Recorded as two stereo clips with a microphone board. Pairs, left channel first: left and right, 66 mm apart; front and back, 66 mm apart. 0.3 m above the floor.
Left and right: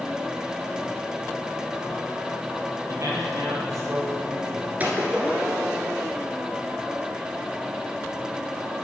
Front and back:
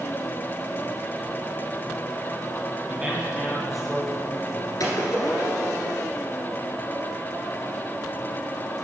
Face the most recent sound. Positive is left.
turn(degrees=-25)